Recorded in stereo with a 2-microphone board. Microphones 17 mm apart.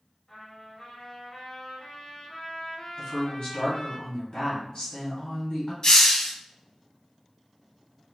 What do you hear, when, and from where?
0.3 s a trumpet: 35° left (ahead or behind), 1.9 m
3.0 s a woman speaking: 50° left (ahead or behind), 1.7 m
5.8 s a hiss: 40° left (ahead or behind), 0.7 m